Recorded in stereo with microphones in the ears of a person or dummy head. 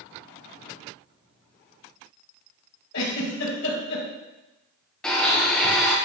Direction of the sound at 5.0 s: 10° left (ahead or behind).